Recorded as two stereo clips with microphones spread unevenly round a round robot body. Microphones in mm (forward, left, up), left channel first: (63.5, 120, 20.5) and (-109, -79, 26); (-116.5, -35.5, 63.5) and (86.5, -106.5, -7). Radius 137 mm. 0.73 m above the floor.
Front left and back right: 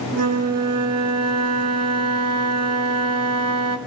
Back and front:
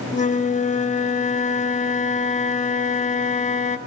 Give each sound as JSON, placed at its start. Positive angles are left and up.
{"t": 0.1, "sound": "a flute", "azimuth_deg": -135, "distance_m": 1.8}